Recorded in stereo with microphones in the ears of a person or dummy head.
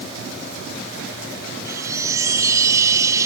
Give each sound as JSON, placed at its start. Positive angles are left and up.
{"t": 1.6, "sound": "a chime", "side_deg": -25}